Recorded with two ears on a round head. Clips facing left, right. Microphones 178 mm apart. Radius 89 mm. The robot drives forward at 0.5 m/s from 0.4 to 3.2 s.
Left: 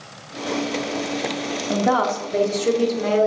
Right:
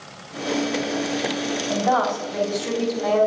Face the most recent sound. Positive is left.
turn(degrees=35)  # may be behind; listen again after turning